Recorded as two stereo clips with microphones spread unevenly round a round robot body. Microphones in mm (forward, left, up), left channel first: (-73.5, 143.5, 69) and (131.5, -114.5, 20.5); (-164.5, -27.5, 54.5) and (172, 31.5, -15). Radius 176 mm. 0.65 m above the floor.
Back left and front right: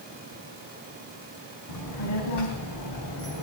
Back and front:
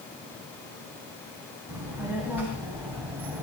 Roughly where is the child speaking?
Left.